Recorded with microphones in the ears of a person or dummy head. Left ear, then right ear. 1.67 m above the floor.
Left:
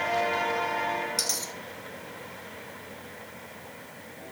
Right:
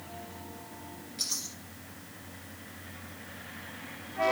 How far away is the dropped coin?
About 4 m.